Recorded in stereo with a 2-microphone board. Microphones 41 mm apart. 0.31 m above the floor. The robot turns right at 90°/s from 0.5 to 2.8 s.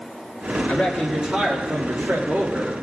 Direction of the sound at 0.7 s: 150° left.